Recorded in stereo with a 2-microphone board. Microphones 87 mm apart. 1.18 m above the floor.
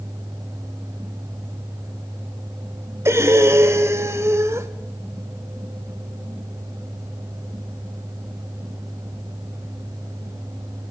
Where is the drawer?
I don't hear a drawer.